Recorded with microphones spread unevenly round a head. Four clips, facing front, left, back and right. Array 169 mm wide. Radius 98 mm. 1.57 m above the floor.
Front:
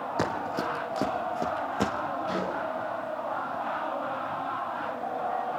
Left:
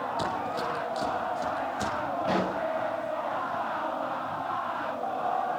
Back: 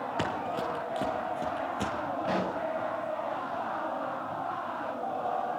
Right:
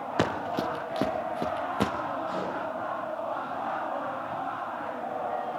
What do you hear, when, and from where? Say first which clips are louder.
0.2 s running footsteps: right 6 dB, front 3 dB; 65° right, 3.5 m; by 1.9 s 45° right, 5 m
2.2 s a pop: left 4 dB, back 3 dB; 120° left, 7 m